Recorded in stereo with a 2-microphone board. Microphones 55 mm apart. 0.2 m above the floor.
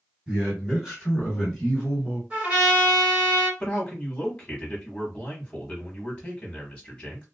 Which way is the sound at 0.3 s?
20° right (ahead or behind).